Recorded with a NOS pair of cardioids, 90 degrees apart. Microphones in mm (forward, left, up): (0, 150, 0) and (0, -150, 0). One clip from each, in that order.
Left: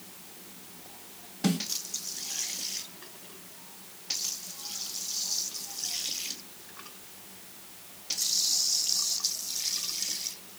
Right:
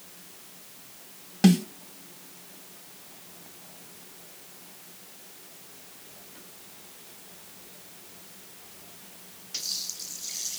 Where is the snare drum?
70° right, 2 m.